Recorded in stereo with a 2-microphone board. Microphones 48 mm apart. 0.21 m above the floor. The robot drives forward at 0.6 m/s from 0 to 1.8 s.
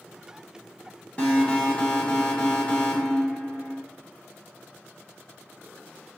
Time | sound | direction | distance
1.2 | an alarm | 25° left (ahead or behind) | 1.1 m